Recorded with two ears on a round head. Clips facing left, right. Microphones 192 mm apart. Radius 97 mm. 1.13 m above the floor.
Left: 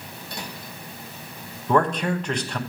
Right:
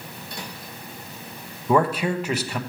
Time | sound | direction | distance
1.7 | a man speaking | 5° right (ahead or behind) | 1.0 m